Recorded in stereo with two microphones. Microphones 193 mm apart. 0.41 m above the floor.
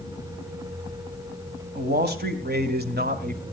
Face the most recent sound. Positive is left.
turn(degrees=-45)  # may be behind; listen again after turning